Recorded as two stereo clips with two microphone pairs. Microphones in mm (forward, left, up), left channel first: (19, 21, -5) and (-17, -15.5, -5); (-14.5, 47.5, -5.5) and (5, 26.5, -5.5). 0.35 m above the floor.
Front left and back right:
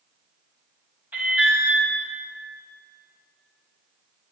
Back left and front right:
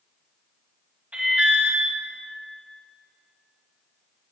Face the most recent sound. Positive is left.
turn(degrees=-80)